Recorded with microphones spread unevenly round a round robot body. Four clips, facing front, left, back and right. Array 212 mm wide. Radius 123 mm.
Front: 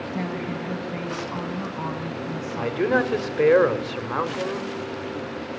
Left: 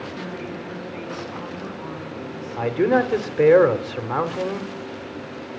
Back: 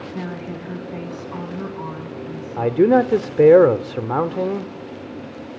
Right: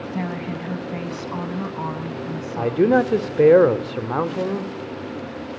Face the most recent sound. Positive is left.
turn(degrees=-160)